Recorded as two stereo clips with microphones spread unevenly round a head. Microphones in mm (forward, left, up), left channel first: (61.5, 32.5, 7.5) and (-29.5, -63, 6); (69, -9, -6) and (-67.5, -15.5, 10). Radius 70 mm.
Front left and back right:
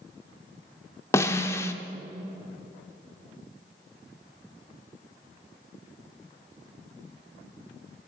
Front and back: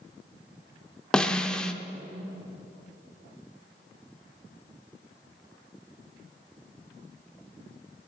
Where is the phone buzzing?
I don't hear a phone buzzing.